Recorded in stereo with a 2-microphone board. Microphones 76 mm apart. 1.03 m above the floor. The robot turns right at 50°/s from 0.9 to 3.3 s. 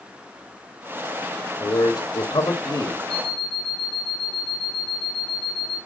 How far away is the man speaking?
About 1.9 m.